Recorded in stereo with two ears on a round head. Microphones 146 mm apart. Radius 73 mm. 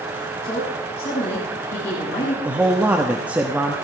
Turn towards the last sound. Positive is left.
turn(degrees=-10)  # may be behind; listen again after turning